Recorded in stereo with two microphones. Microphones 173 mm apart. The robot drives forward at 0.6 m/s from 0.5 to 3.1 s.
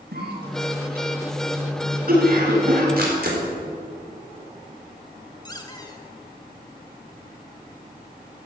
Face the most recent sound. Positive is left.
turn(degrees=25)  # may be behind; listen again after turning